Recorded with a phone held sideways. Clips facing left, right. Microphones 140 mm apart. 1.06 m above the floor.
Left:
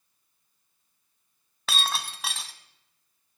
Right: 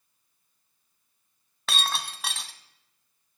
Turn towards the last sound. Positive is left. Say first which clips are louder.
# even
turn(degrees=0)  # may be behind; listen again after turning